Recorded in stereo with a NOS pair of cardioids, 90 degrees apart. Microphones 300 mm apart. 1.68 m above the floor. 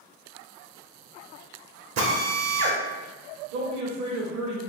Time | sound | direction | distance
2.0 | a drill | 60° right | 1.0 m
3.5 | a man speaking | 65° right | 1.0 m